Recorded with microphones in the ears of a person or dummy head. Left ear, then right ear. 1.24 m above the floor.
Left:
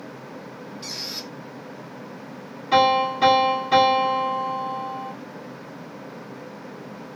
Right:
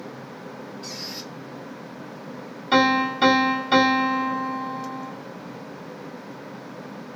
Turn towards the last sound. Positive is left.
turn(degrees=-15)  # may be behind; listen again after turning